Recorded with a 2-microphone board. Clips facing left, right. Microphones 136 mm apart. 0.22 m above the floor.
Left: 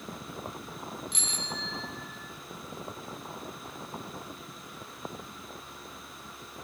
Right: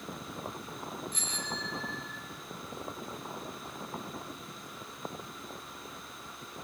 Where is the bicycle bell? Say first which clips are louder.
Even; 80° left, 4.5 m; by 2.2 s 75° left (ahead or behind), 4.5 m.